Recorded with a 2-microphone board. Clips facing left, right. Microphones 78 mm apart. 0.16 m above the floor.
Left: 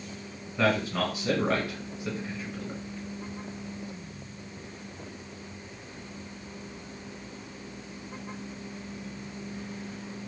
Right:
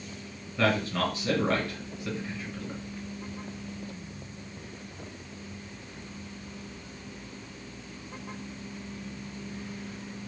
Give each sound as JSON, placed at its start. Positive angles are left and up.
{"t": 0.6, "sound": "a man speaking", "side_deg": 15, "distance_m": 1.5}